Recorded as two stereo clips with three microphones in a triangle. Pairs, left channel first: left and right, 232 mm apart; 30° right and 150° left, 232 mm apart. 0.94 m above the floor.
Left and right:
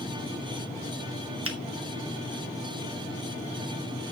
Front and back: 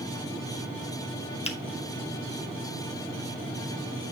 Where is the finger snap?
95° right, 1.1 m.